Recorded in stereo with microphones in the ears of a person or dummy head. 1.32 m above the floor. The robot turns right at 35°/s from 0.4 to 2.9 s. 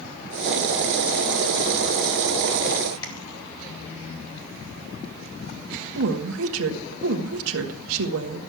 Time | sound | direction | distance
3.0 | tapping | 25° left (ahead or behind) | 2.5 m
6.0 | a woman speaking | 75° right (ahead or behind) | 1.3 m